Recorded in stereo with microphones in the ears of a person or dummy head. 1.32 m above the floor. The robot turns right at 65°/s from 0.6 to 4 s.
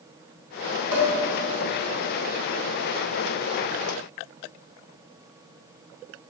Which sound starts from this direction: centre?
Dishes clattering, at 0.9 s.